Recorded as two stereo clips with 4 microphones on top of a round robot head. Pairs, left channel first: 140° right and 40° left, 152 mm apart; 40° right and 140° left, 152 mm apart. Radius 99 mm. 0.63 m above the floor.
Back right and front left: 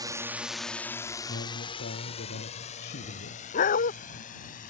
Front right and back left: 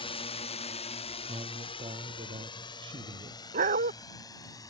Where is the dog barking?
Straight behind.